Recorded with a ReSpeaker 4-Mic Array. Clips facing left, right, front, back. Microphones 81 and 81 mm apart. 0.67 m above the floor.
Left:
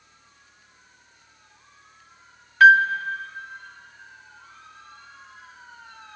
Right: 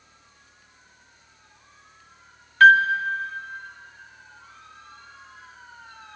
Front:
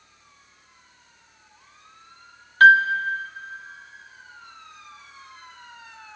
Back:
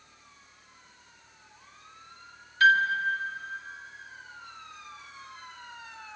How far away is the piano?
About 1.5 m.